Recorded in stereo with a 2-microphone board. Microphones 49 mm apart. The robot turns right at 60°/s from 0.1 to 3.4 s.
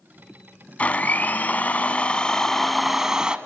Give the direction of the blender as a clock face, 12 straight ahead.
10 o'clock.